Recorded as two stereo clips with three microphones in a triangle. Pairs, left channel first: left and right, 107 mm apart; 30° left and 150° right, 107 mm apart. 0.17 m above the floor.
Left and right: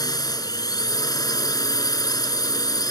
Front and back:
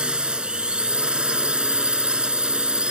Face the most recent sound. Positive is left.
turn(degrees=130)